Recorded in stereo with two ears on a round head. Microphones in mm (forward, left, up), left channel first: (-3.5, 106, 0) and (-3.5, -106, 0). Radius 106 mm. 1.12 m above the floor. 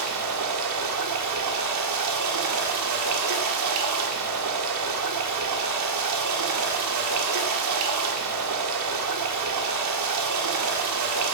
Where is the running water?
80° right, 1.8 m.